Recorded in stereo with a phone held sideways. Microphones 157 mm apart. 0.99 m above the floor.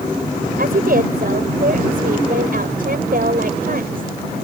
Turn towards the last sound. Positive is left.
turn(degrees=-70)  # may be behind; listen again after turning